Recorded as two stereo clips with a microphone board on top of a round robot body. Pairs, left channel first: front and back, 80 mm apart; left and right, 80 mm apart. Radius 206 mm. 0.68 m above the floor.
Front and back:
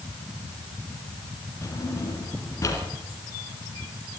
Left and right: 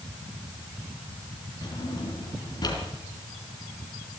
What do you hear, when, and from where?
1.6 s a drawer: 55° left, 3.5 m